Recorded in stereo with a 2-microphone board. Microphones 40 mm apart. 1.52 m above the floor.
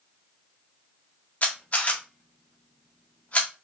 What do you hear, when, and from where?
1.4 s a camera shutter: 35° left (ahead or behind), 0.8 m